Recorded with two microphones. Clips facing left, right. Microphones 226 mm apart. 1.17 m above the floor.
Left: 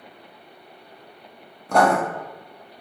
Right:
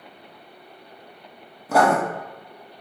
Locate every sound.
1.7 s writing: 5° right (ahead or behind), 0.6 m